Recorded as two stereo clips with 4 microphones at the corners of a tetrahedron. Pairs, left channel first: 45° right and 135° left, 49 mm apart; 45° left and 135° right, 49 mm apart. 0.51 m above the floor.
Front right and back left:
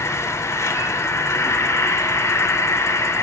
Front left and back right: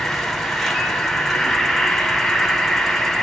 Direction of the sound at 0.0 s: 45° right.